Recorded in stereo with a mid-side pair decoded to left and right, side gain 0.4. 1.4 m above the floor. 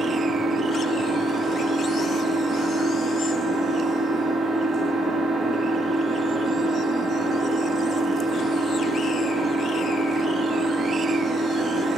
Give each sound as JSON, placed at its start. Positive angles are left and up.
{"t": 0.0, "sound": "an engine running", "azimuth_deg": -55, "distance_m": 5.5}